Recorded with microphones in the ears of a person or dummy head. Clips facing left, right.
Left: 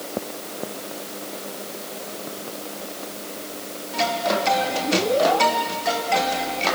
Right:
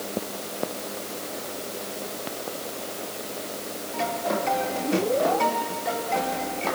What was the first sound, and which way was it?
Only background noise.